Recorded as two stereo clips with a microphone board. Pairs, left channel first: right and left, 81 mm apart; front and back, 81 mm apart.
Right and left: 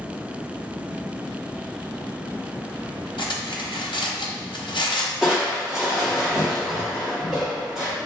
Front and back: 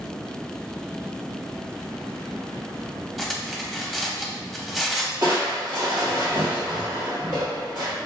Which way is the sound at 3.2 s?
90° right.